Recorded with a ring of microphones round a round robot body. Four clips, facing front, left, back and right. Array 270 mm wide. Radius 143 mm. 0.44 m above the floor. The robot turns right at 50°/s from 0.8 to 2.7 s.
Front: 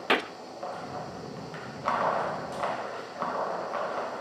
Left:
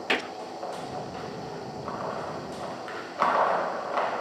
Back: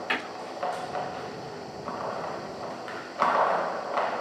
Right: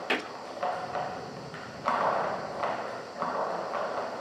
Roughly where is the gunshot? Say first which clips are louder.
Left 3 dB, front 7 dB; ahead.